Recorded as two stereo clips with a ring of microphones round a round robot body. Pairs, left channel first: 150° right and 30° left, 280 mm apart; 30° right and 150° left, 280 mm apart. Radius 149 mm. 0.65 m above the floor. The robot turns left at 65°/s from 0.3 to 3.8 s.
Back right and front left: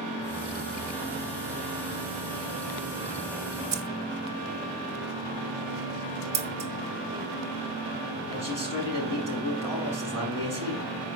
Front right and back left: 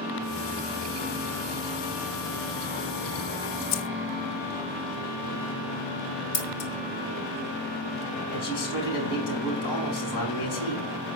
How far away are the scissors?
About 2.5 m.